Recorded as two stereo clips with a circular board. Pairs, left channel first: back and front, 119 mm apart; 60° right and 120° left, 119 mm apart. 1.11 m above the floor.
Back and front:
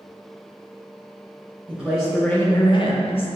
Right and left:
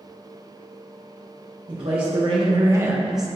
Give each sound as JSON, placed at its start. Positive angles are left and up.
{"t": 1.7, "sound": "a man speaking", "azimuth_deg": 80, "distance_m": 1.4}